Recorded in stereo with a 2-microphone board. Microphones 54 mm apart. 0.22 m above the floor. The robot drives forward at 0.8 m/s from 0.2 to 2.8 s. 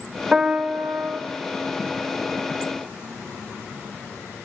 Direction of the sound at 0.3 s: 15° right (ahead or behind).